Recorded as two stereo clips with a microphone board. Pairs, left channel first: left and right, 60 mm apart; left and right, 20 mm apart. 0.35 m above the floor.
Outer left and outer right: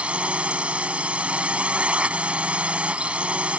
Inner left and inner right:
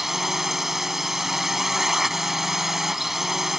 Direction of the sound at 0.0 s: 20° right (ahead or behind).